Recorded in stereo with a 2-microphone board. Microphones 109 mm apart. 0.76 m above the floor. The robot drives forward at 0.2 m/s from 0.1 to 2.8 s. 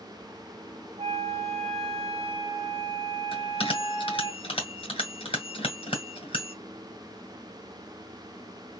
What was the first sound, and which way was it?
A flute, 70° right (ahead or behind).